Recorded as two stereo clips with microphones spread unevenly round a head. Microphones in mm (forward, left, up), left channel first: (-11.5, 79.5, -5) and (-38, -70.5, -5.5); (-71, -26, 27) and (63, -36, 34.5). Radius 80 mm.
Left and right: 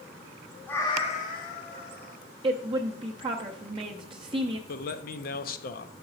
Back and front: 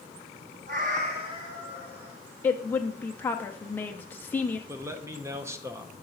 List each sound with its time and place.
0.7 s a cat meowing: straight ahead, 0.8 m; by 2.2 s 75° left, 1.7 m
2.4 s a woman speaking: 125° right, 0.5 m
4.7 s a man speaking: 65° left, 0.6 m